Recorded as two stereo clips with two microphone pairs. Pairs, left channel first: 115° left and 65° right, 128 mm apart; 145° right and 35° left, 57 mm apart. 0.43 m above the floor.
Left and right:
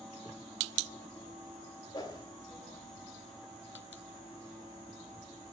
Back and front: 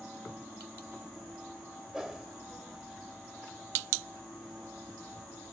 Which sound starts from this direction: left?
A whoosh, at 1.9 s.